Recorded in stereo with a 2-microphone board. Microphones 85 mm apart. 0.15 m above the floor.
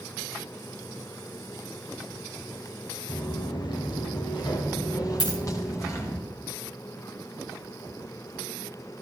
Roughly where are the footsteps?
Left.